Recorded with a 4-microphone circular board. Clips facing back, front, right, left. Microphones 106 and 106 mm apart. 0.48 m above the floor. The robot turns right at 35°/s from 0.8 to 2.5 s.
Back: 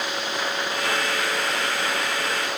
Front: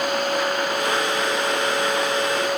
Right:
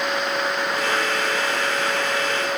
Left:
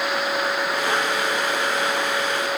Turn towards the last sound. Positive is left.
No sound to turn to.